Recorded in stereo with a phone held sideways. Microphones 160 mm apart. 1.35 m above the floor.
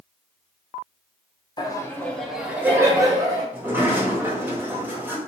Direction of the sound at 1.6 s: 25° left (ahead or behind).